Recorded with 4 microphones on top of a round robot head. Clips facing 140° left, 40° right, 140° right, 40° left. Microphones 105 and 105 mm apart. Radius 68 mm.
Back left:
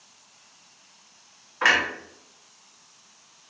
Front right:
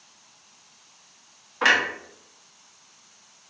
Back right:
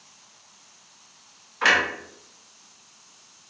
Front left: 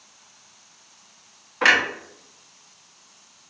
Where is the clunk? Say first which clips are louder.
Front right 1 dB, front left 2 dB; 25° left, 1.1 m.